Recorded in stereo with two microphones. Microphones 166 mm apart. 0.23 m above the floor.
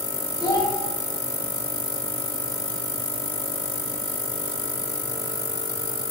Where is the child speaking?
25° left (ahead or behind), 0.7 m.